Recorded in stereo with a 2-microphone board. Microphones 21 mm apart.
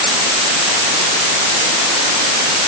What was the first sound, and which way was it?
Only background noise.